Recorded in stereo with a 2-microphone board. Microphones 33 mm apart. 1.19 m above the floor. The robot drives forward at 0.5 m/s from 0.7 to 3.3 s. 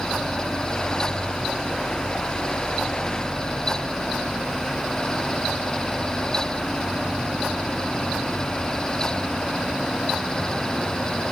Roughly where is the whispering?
I don't hear whispering.